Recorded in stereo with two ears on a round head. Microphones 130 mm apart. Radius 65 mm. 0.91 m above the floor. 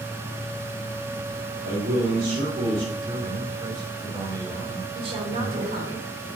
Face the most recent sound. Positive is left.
turn(degrees=-40)  # may be behind; listen again after turning